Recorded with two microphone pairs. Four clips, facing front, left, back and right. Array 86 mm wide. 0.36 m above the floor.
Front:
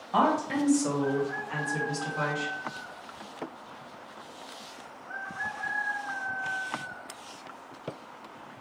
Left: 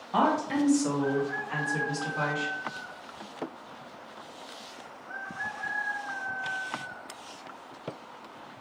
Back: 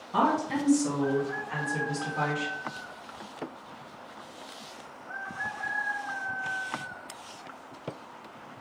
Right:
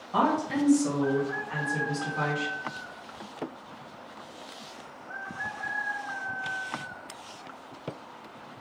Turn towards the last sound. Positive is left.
turn(degrees=-160)